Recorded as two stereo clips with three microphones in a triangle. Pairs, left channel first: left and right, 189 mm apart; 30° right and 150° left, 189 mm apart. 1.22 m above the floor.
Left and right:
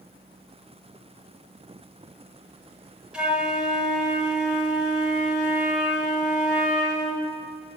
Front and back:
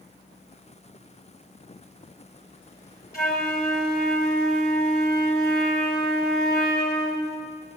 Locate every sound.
3.1 s a flute: 5° right, 1.6 m